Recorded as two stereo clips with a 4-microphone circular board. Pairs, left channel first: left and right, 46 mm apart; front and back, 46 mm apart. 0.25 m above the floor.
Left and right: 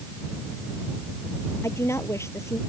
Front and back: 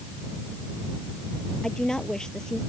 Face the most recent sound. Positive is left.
turn(degrees=75)